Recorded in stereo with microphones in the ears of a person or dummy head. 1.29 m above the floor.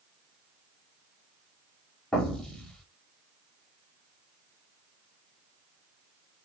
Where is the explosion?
5° left (ahead or behind), 1.0 m.